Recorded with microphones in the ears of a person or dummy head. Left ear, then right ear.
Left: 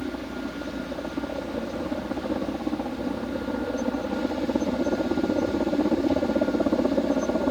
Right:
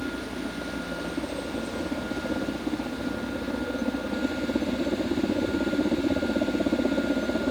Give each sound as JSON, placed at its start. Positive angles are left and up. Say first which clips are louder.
{"t": 0.0, "sound": "a helicopter", "louder": "even", "side_deg": 60}